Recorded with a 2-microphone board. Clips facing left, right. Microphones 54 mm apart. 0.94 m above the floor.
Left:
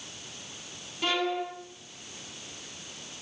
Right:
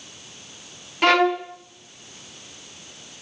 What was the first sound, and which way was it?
A violin, 65° right (ahead or behind).